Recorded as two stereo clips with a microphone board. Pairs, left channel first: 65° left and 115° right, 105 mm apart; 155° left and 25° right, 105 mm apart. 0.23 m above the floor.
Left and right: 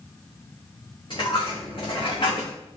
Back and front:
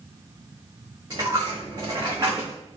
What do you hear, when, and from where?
1.1 s a dropped coin: 30° left, 2 m